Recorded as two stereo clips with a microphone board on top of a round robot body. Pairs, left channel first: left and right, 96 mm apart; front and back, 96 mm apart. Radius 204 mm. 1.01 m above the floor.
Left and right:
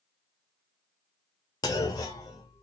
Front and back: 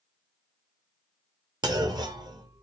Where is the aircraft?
No aircraft in this recording.